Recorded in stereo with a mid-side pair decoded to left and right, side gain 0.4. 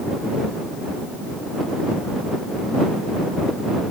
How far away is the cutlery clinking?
I don't hear cutlery clinking.